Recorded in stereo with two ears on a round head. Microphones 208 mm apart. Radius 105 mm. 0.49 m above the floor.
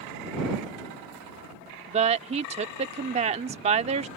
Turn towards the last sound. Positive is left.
turn(degrees=-30)  # may be behind; listen again after turning